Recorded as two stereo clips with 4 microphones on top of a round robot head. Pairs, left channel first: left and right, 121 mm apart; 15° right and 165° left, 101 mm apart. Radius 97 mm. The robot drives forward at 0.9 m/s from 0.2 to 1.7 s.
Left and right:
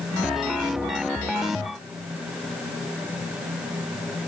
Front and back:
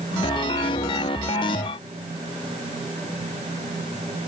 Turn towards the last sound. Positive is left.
No sound to turn to.